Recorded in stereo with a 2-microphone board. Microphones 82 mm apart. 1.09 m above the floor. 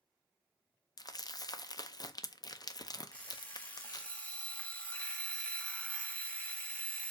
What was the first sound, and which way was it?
Crumpling, 50° left (ahead or behind).